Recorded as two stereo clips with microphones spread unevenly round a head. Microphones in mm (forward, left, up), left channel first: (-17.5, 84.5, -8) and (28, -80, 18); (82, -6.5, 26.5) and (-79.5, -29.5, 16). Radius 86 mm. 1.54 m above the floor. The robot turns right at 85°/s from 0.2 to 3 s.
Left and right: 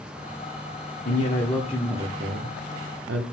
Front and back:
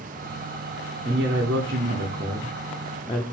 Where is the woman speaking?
135° left, 0.8 m; by 3.2 s 60° right, 0.8 m.